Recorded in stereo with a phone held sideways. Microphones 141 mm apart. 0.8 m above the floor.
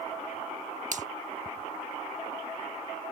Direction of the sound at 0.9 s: 60° right (ahead or behind).